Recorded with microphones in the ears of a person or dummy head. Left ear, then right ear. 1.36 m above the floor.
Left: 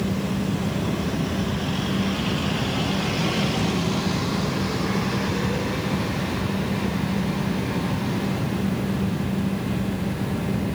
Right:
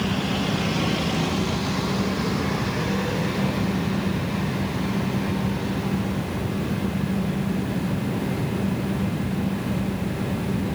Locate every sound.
Only background noise.